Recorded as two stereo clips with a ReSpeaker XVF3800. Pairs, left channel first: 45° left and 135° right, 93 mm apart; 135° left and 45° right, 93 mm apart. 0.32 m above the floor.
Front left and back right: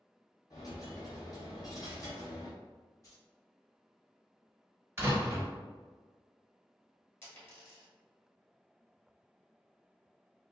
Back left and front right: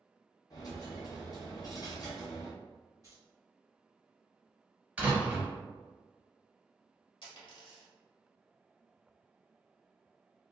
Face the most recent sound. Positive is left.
turn(degrees=110)